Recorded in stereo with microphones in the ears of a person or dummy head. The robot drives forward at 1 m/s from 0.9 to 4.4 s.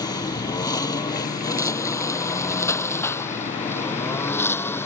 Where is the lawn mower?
30° left (ahead or behind); by 4.9 s 20° left (ahead or behind).